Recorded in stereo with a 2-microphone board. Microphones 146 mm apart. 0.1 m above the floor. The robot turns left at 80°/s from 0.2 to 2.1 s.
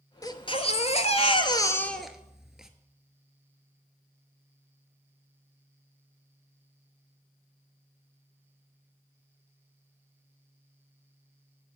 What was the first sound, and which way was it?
A baby crying, 145° left.